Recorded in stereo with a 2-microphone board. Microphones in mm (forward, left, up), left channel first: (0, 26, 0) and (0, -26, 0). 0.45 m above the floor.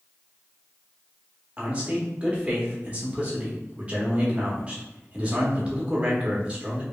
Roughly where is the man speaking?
Right.